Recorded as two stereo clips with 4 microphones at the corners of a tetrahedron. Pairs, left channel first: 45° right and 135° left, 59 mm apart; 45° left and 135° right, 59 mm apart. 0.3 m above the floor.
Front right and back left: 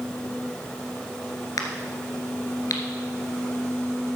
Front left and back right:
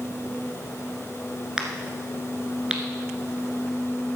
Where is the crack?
60° right, 1.8 m.